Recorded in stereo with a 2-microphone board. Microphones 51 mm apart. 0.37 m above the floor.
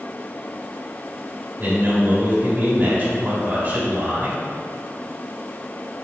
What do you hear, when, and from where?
1.6 s a man speaking: 40° right (ahead or behind), 1.3 m